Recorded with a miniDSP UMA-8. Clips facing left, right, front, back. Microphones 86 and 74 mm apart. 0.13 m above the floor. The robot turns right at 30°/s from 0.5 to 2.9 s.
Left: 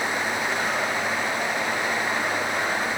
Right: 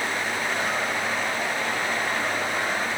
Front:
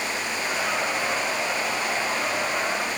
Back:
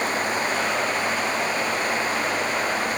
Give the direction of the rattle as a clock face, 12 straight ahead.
No rattle in this recording.